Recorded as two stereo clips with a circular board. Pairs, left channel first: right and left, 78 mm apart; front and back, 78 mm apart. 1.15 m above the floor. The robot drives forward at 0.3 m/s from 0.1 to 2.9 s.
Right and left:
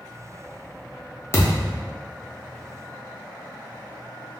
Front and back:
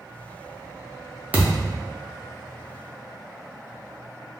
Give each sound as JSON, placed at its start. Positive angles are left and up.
{"t": 1.3, "sound": "a thud", "azimuth_deg": -120, "distance_m": 0.7}